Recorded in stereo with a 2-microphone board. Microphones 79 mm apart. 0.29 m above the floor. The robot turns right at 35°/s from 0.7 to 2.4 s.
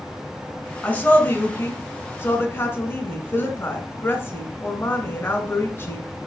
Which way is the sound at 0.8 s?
20° left (ahead or behind).